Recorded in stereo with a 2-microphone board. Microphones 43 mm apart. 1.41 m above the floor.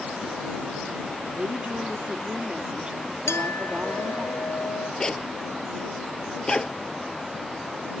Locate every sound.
1.3 s a woman speaking: 30° right (ahead or behind)
3.3 s a clink: 80° left
5.0 s a zipper: 15° left (ahead or behind)